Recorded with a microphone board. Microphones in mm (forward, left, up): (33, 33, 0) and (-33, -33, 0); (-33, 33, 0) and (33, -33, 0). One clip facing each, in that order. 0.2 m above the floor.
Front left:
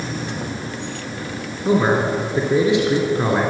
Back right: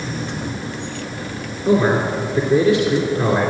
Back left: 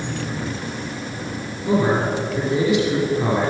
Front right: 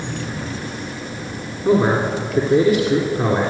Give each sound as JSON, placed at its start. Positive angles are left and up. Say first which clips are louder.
{"t": 1.6, "sound": "a man speaking", "louder": "back right 1 dB, front right 3 dB", "azimuth_deg": -20, "distance_m": 2.5}